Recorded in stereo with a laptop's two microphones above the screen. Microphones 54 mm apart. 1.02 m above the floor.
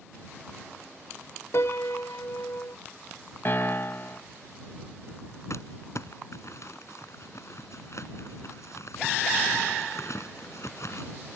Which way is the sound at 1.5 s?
60° left (ahead or behind).